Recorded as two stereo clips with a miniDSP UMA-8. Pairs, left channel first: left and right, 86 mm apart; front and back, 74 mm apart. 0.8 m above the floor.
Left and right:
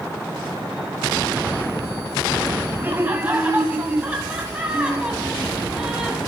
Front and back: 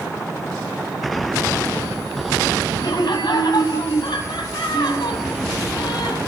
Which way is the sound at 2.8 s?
20° right.